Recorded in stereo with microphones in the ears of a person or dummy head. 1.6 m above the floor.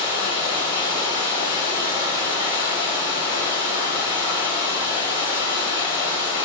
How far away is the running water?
About 1.0 m.